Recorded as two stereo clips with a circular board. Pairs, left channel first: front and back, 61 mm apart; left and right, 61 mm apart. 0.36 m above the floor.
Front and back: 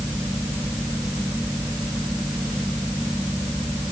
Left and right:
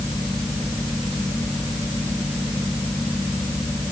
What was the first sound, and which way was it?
Only background noise.